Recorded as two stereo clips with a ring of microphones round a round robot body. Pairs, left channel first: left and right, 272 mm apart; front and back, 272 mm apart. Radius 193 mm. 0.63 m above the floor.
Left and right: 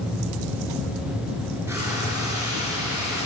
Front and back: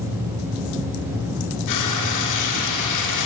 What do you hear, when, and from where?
1.7 s frying: 5° right, 5 m